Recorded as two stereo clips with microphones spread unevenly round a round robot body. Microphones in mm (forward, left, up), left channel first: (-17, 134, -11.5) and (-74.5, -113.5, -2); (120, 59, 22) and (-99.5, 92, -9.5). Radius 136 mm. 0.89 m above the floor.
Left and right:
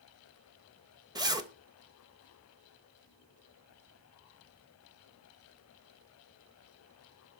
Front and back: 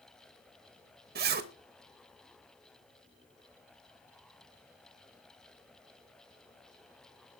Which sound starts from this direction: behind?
A zipper, at 1.1 s.